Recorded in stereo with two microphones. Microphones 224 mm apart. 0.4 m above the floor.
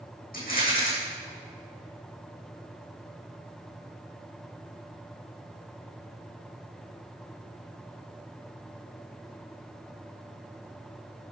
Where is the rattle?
40° left (ahead or behind), 5 m.